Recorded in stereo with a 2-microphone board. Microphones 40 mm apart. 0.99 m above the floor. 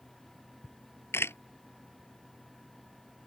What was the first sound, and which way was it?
A camera shutter, 90° left.